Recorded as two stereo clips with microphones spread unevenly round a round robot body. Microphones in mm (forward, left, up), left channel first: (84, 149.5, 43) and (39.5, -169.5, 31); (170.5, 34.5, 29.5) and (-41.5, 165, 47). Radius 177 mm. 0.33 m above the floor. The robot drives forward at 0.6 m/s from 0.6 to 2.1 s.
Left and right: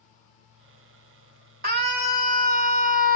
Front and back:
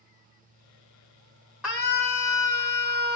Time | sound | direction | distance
1.6 | a scream | 120° right | 1.2 m